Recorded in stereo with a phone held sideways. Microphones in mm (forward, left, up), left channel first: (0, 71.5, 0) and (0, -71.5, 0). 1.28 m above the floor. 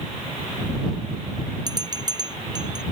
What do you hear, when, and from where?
1.7 s a bell: 25° right (ahead or behind)